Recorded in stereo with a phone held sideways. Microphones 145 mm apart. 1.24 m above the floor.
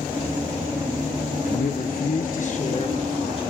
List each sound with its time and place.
1.4 s a man speaking: 60° left (ahead or behind), 0.8 m; by 3.4 s 35° left (ahead or behind), 1.6 m